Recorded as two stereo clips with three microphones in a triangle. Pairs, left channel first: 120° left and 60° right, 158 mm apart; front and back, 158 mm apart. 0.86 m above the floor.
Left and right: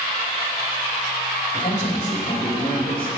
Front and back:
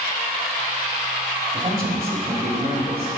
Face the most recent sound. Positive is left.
turn(degrees=175)